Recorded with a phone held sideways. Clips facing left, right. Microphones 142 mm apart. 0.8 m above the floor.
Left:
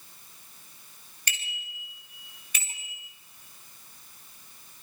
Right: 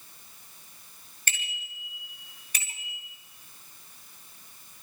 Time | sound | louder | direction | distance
1.3 | a bicycle bell | right 2 dB | 45° right (ahead or behind) | 8.5 m